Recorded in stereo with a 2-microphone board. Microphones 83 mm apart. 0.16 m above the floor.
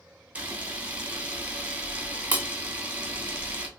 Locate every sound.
0.3 s a camera shutter: 15° right (ahead or behind), 0.7 m